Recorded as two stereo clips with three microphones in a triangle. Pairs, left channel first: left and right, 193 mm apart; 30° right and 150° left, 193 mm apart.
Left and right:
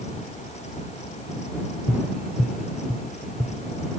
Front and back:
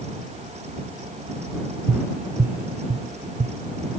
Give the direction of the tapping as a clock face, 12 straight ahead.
6 o'clock.